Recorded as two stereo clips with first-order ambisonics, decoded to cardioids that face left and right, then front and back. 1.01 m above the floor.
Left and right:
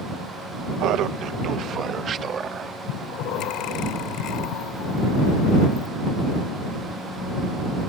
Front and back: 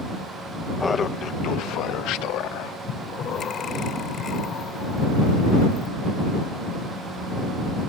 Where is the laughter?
80° right; by 2.8 s 25° right.